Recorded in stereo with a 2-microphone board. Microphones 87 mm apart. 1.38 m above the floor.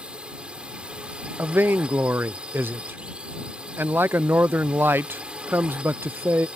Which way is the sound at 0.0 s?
10° right (ahead or behind).